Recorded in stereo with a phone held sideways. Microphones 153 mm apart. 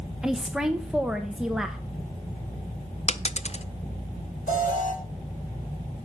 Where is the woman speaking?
5° right (ahead or behind), 0.9 m.